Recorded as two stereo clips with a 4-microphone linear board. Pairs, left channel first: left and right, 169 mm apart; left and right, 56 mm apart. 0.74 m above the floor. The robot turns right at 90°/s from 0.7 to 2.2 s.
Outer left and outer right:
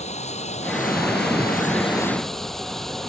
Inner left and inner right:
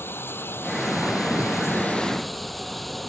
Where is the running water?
45° left; by 3.1 s straight behind.